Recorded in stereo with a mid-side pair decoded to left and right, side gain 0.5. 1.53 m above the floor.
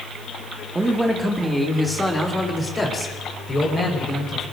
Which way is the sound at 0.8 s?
20° right.